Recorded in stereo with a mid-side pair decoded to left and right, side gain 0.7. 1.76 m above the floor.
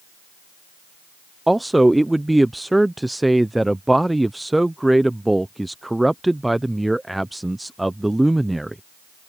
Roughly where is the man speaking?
Ahead.